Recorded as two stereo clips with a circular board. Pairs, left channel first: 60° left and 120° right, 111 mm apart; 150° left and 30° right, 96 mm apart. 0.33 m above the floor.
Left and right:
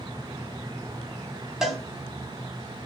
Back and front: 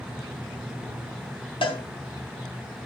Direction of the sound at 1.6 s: 155° left.